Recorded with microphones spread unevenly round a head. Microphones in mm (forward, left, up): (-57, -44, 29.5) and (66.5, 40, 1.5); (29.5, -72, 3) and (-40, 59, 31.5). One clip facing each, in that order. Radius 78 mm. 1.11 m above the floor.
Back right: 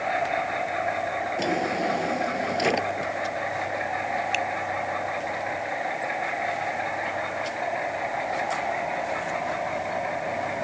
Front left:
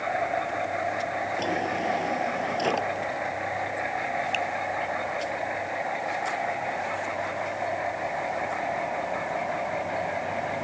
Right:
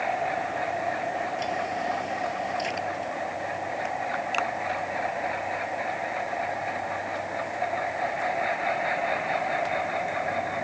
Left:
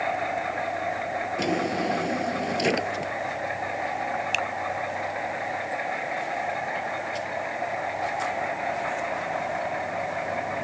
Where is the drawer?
140° left.